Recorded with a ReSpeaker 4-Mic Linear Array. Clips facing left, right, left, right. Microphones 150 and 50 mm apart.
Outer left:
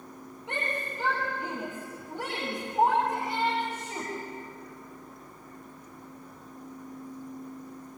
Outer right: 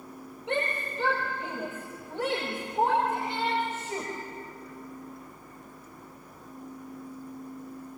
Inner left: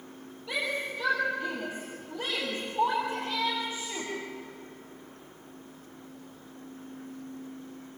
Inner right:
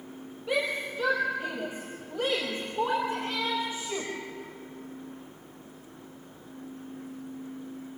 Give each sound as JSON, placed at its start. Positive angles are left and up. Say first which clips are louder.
{"t": 0.5, "sound": "a shout", "louder": "outer right 4 dB, inner right 3 dB", "side_deg": -20, "distance_m": 5.0}